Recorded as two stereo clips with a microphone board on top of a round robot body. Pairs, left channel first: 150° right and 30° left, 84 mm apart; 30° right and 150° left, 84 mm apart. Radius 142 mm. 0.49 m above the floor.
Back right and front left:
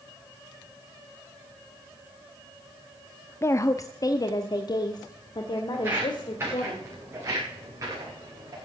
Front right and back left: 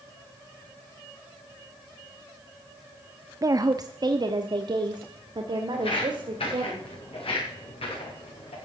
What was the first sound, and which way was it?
A woman speaking, 170° left.